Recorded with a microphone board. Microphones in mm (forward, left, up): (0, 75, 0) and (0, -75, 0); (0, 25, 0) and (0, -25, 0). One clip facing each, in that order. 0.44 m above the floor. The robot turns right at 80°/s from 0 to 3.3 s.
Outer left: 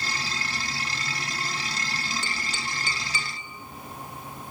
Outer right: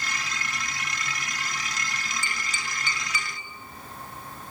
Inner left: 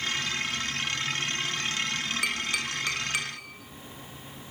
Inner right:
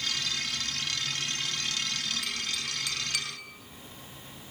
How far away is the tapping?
About 3 m.